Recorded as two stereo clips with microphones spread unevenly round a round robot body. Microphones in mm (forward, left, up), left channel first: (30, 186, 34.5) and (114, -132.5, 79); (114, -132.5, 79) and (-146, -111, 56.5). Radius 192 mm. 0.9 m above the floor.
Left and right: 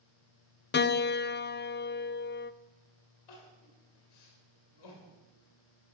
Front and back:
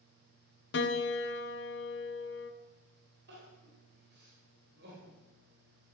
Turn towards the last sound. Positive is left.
turn(degrees=115)